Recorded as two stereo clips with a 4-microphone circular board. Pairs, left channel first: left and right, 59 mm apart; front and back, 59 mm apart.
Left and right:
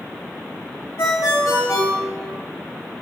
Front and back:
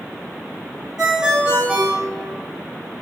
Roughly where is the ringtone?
Left.